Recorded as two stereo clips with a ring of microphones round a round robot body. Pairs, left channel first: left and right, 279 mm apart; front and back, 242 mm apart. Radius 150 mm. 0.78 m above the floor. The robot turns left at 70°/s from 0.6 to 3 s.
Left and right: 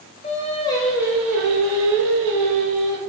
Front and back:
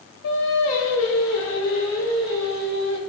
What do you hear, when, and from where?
0.2 s singing: 20° left, 0.7 m; by 3.0 s 145° right, 0.7 m